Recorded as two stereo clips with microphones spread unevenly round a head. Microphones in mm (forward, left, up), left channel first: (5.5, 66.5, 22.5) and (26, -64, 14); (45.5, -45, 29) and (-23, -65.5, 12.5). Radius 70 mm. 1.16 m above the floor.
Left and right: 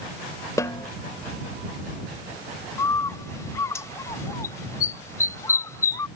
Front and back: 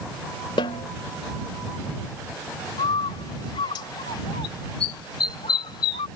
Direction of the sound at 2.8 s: 30° left.